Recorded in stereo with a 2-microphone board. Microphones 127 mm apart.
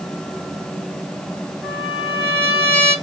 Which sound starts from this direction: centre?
A trumpet, at 1.6 s.